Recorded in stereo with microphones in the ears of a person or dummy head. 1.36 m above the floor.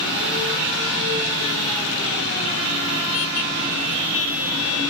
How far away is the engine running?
About 9 m.